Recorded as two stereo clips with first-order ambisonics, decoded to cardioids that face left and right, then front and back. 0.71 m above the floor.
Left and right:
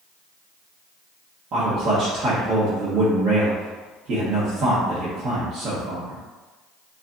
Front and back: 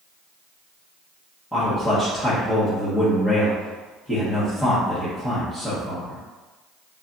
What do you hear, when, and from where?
1.5 s a man speaking: 75° right, 0.9 m